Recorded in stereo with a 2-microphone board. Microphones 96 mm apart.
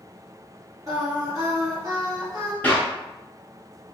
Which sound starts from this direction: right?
Singing, at 0.9 s.